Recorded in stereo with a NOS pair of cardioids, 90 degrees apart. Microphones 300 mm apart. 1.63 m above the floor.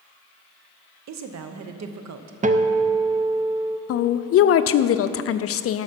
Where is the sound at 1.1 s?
60° right, 0.9 m.